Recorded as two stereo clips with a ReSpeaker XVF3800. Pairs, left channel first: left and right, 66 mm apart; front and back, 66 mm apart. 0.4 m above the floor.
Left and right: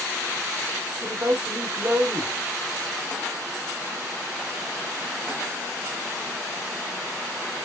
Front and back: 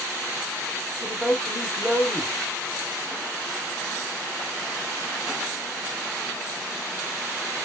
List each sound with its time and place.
1.0 s a man speaking: 95° right, 1.1 m